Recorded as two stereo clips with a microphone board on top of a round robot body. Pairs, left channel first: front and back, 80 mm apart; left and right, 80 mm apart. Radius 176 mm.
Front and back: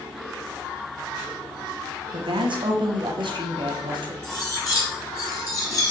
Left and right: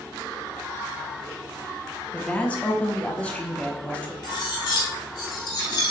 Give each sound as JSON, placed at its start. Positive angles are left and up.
{"t": 2.1, "sound": "a woman speaking", "azimuth_deg": 165, "distance_m": 1.3}
{"t": 4.2, "sound": "cutlery clinking", "azimuth_deg": 50, "distance_m": 1.6}